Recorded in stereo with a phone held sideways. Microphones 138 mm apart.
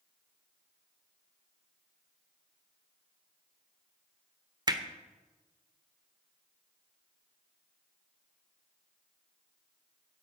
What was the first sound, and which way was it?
Hammering, 30° right (ahead or behind).